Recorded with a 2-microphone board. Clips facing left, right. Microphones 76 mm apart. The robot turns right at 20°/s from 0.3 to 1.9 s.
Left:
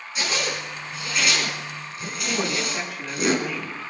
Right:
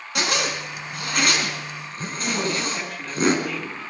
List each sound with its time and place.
0.1 s a zipper: 70° right (ahead or behind), 4.5 m; by 3.4 s 35° right (ahead or behind), 4.5 m
2.4 s a woman speaking: centre (ahead or behind), 7.5 m